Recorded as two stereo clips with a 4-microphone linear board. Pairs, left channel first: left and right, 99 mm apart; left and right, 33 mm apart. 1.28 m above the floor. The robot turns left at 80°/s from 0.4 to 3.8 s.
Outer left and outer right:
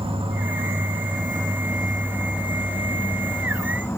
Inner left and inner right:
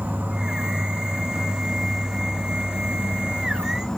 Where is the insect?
65° right, 1.9 m; by 4.0 s 25° left, 1.9 m.